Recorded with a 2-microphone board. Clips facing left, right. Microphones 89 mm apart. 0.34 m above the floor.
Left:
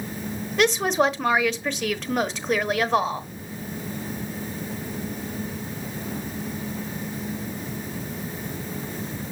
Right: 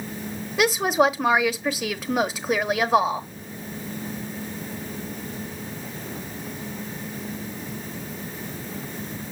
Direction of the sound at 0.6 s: 10° right (ahead or behind).